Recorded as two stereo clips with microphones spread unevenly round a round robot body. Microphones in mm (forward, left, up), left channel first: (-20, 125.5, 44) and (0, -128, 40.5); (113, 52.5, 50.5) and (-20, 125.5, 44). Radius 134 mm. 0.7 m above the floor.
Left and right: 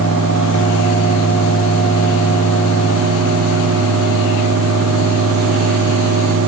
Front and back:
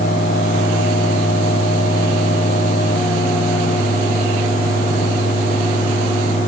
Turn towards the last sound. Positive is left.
No sound to turn to.